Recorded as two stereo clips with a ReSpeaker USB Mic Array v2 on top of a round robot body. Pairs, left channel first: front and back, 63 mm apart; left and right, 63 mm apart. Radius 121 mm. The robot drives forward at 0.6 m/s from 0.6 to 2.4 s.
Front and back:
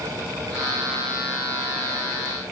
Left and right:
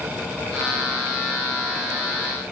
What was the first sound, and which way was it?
Only background noise.